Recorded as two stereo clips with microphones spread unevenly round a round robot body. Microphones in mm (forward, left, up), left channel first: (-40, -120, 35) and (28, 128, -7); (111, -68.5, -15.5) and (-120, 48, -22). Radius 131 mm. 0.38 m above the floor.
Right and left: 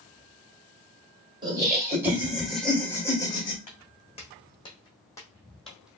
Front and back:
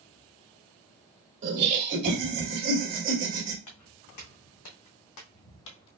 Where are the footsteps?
45° right, 1.9 m; by 6.0 s 15° right, 0.9 m.